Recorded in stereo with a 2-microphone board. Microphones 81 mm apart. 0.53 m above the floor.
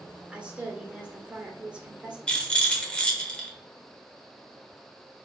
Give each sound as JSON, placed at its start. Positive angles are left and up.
{"t": 0.3, "sound": "a woman speaking", "side_deg": -15, "distance_m": 1.9}
{"t": 2.3, "sound": "a rattle", "side_deg": 15, "distance_m": 1.4}